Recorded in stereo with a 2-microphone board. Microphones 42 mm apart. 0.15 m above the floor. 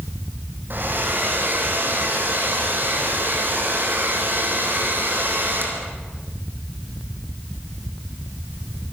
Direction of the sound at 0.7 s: 55° right (ahead or behind).